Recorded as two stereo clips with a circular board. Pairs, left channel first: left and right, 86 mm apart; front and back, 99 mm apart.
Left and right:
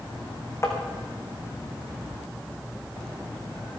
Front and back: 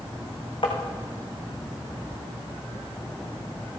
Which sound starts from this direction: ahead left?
Tapping, at 0.6 s.